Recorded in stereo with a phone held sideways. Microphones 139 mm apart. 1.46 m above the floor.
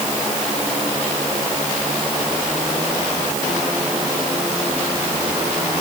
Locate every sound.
Only background noise.